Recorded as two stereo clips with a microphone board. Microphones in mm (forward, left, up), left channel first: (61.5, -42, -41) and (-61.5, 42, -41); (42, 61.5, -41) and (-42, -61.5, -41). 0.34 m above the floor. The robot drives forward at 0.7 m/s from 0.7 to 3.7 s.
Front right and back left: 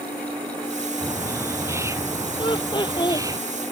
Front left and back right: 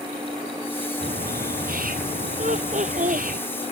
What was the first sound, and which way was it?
A bird, 140° right.